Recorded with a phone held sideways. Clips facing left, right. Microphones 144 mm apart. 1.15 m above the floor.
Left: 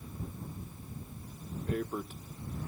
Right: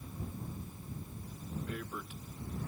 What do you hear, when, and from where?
1.7 s tearing paper: 40° left (ahead or behind)